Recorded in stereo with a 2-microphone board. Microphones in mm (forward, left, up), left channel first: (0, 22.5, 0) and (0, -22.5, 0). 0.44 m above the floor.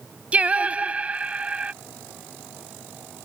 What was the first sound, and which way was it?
Singing, 30° right (ahead or behind).